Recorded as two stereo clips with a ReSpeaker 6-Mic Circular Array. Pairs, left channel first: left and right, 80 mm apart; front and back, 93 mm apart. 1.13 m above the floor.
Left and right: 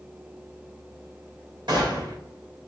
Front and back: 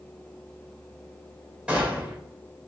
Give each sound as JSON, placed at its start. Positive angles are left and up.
{"t": 1.7, "sound": "a gunshot", "azimuth_deg": -100, "distance_m": 2.0}